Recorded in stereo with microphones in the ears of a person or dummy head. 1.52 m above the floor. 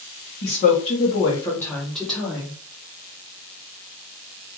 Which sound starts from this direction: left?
A woman speaking, at 0.4 s.